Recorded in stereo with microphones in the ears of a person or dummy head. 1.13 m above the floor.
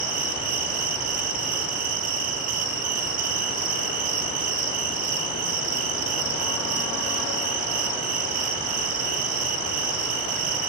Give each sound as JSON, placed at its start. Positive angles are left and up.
{"t": 0.0, "sound": "an insect", "side_deg": -40, "distance_m": 0.9}